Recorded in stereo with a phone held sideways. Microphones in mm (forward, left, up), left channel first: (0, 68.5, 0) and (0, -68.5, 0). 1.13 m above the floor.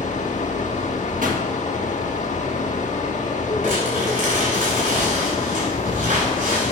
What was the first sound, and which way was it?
A fan, 60° left (ahead or behind).